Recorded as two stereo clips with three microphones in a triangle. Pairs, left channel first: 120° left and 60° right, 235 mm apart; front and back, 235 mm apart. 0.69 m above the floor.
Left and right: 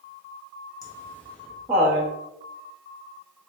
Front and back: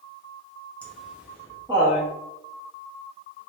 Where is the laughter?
75° left, 0.8 m; by 2.1 s 135° right, 1.0 m.